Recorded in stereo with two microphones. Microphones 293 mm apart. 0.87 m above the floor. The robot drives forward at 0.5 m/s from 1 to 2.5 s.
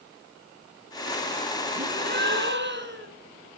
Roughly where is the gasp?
Right.